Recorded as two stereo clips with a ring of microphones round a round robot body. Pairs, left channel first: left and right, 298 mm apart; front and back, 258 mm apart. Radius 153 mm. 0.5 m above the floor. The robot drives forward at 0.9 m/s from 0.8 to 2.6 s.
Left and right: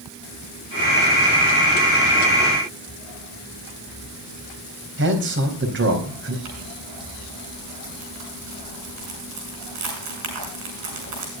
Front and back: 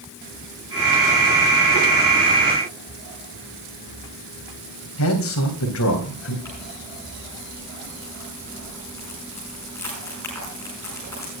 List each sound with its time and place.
5.0 s a man speaking: 40° right, 4 m
6.5 s crumpling: 80° right, 8 m